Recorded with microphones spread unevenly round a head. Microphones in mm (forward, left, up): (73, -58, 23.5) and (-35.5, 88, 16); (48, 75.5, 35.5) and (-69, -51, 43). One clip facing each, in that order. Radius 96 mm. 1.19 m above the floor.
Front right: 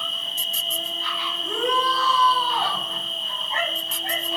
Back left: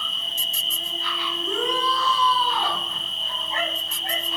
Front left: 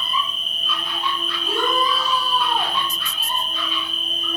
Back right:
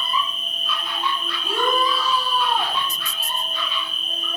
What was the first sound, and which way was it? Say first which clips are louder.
An insect: front right 2 dB, back right 1 dB; 5° right.